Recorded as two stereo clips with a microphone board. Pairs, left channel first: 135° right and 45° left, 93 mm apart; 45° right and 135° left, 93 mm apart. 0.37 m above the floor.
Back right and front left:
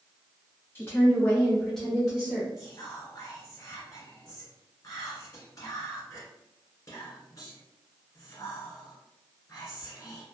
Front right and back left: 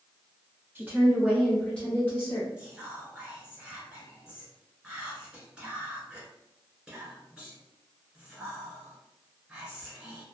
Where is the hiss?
I don't hear a hiss.